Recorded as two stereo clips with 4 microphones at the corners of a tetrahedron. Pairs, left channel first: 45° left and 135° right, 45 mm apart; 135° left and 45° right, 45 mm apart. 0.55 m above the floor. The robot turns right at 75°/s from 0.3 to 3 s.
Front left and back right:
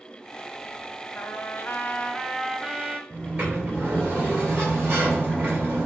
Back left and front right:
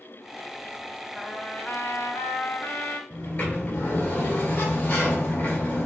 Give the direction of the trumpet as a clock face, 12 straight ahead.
10 o'clock.